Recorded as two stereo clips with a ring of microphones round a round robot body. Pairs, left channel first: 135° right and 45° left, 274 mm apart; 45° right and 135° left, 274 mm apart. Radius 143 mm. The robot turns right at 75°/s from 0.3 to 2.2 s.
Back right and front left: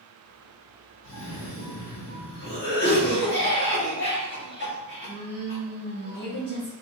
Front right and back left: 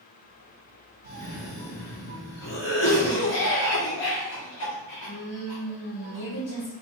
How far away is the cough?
About 1.2 m.